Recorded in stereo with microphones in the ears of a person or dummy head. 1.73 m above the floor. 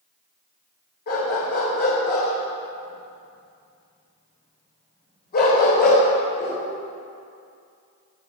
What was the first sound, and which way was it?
A dog barking, 50° left (ahead or behind).